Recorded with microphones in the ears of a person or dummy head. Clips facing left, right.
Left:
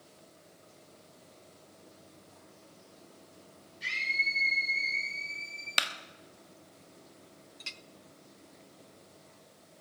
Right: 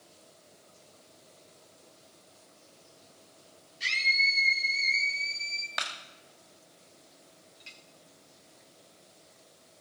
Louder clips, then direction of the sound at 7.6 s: Left 3 dB; 65° left (ahead or behind).